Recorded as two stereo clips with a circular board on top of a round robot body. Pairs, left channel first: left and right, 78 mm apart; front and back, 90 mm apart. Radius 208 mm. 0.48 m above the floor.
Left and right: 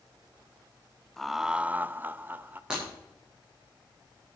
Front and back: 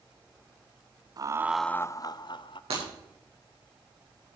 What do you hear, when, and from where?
1.2 s laughter: 175° left, 0.8 m; by 2.6 s 25° right, 1.3 m
2.7 s breaking glass: 170° right, 8 m